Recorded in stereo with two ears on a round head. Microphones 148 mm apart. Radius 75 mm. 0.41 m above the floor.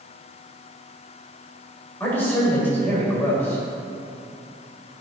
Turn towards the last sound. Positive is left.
turn(degrees=15)  # may be behind; listen again after turning